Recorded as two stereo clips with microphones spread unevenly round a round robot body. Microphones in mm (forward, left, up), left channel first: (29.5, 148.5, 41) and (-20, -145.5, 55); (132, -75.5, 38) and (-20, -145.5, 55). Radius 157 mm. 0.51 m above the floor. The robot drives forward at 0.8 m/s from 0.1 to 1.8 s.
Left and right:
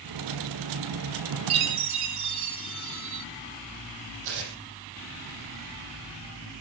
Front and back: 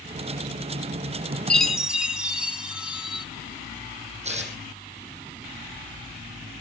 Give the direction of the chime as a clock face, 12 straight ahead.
2 o'clock.